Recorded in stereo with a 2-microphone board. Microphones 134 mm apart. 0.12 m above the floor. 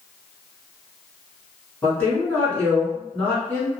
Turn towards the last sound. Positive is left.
turn(degrees=15)  # may be behind; listen again after turning